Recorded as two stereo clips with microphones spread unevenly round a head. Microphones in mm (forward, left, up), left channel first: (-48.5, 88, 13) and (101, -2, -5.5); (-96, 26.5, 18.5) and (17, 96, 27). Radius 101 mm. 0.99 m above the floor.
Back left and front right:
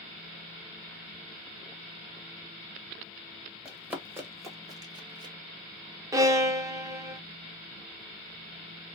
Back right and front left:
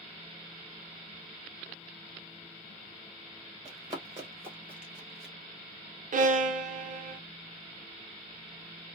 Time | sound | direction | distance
3.6 | running footsteps | 60° left | 1.1 m
6.1 | a violin | 35° left | 0.6 m